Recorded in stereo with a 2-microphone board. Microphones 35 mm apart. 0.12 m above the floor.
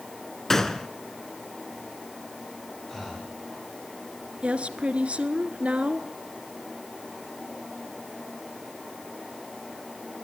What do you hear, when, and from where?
0.5 s a gunshot: 15° left (ahead or behind), 1.3 m
2.9 s breathing: 15° left (ahead or behind), 9 m
4.4 s a woman speaking: 35° right (ahead or behind), 1.4 m